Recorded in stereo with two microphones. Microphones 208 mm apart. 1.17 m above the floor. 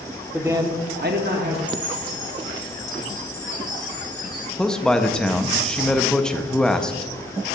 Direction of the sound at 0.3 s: 5° right (ahead or behind).